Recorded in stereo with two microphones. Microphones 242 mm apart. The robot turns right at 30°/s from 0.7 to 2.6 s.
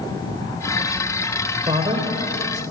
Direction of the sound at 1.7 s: 20° right (ahead or behind).